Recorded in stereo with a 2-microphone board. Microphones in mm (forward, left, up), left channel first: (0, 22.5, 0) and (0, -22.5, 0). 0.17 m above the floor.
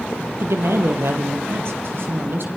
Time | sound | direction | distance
0.4 | a woman speaking | 70° right (ahead or behind) | 4.5 m